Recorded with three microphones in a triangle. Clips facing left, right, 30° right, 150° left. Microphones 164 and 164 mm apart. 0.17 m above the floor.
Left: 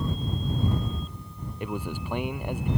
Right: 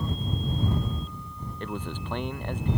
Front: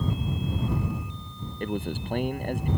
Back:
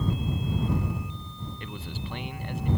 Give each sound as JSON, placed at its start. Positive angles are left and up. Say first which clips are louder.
{"t": 1.6, "sound": "a man speaking", "louder": "left 2 dB, front 12 dB", "azimuth_deg": 10}